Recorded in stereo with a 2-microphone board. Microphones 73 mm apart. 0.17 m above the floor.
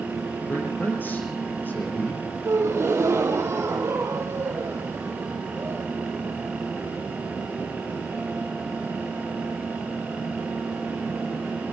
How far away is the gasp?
About 3.5 m.